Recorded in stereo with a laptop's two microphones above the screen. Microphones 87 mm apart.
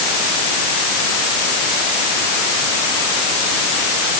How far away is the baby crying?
I don't hear a baby crying.